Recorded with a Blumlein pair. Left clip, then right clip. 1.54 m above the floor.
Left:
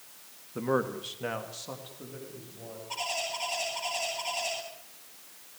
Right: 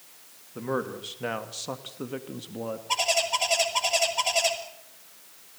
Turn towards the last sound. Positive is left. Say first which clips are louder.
# right 8 dB
turn(degrees=-55)